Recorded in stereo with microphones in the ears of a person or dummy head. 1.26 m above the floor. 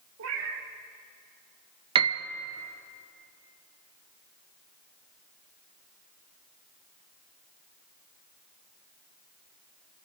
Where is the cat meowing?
80° right, 2.5 m.